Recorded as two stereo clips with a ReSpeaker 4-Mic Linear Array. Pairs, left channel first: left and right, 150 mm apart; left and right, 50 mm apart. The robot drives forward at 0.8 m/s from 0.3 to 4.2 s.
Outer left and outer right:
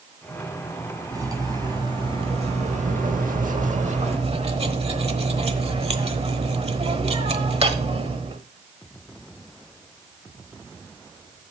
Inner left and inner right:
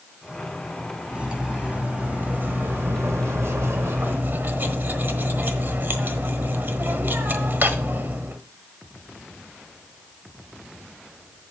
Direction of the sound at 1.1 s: 25° right (ahead or behind).